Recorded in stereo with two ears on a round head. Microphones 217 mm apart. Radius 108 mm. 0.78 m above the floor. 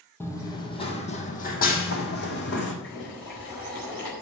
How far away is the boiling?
About 4.5 m.